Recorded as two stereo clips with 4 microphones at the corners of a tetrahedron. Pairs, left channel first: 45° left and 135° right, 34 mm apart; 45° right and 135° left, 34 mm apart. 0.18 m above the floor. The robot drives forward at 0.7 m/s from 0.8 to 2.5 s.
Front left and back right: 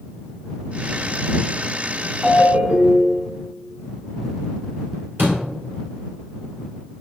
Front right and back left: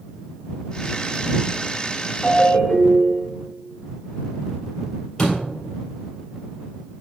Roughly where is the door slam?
Behind right.